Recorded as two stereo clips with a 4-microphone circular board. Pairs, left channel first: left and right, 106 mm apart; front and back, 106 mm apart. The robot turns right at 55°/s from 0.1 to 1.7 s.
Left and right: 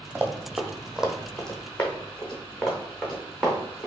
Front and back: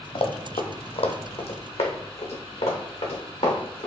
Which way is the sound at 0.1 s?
20° right.